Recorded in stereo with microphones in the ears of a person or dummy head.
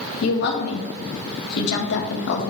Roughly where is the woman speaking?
Left.